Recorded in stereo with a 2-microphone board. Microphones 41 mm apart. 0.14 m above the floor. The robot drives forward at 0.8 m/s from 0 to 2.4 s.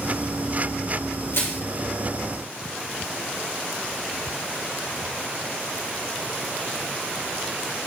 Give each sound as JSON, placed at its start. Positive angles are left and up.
{"t": 1.3, "sound": "crushing", "side_deg": 65, "distance_m": 4.0}